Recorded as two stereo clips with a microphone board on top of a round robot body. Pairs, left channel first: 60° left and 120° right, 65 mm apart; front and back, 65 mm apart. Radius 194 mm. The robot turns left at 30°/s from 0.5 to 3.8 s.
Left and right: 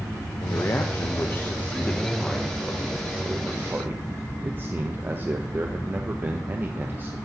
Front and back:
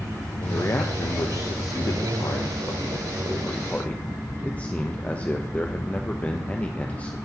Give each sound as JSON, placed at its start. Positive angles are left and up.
{"t": 0.4, "sound": "a man speaking", "azimuth_deg": 35, "distance_m": 0.8}